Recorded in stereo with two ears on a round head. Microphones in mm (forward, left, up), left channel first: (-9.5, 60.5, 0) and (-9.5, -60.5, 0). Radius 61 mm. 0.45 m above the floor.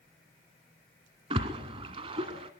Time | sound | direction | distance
1.3 | a splash | 40° right (ahead or behind) | 1.6 m